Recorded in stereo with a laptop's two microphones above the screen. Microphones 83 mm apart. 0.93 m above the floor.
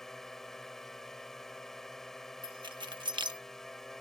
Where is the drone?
5° left (ahead or behind).